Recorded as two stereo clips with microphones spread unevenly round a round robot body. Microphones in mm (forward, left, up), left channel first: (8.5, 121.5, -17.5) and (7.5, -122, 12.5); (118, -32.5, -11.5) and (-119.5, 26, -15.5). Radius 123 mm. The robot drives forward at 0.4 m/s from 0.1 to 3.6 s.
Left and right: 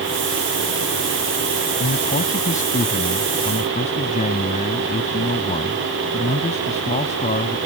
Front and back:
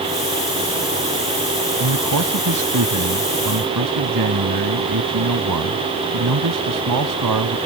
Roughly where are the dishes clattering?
I don't hear dishes clattering.